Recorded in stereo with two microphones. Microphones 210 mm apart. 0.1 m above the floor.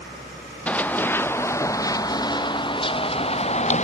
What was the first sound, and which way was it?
Running footsteps, 5° left (ahead or behind).